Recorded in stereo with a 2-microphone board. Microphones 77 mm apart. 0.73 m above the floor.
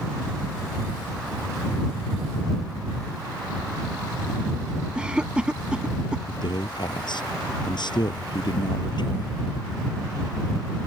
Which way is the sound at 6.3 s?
70° left (ahead or behind).